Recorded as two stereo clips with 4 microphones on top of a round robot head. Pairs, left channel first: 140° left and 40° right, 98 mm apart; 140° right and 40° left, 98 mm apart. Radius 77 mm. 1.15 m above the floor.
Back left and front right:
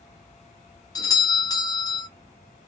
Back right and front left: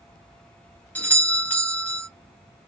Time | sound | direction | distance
0.9 | a doorbell | 155° left | 1.4 m